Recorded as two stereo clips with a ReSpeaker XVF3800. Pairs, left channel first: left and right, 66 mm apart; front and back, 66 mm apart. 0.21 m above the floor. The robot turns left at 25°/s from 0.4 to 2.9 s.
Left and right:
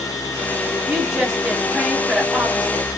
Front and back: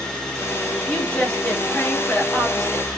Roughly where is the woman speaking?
Ahead.